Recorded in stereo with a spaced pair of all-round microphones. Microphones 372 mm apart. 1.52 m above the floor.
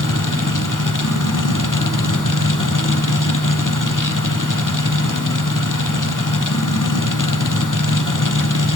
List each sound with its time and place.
0.0 s a machine running: 55° left (ahead or behind), 0.9 m